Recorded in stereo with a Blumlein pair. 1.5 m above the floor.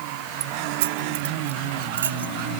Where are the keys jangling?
50° right; by 2.5 s 70° right.